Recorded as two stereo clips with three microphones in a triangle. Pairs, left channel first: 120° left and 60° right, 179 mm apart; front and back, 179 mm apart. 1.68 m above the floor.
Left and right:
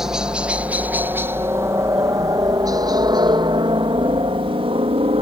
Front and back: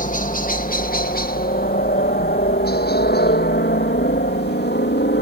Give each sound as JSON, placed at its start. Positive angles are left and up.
{"t": 0.0, "sound": "a helicopter", "azimuth_deg": 25}